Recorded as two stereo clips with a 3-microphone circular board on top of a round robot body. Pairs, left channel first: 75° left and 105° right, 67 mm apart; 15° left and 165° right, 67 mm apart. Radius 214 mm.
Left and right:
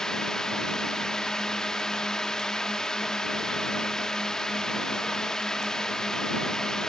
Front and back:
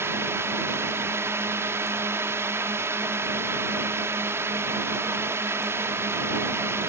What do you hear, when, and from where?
0.0 s a drone: 155° left